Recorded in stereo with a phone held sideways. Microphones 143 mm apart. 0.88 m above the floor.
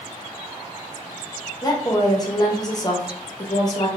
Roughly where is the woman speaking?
Left.